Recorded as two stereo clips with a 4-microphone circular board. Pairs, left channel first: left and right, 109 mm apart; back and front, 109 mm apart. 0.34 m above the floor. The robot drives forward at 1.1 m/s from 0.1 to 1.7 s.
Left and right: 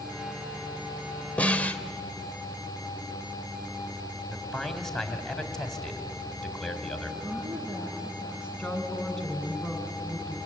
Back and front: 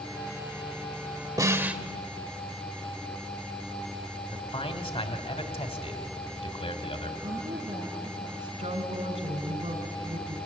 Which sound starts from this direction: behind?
A man speaking, at 4.3 s.